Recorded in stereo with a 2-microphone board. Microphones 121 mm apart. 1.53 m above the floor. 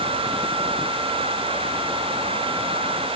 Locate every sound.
Only background noise.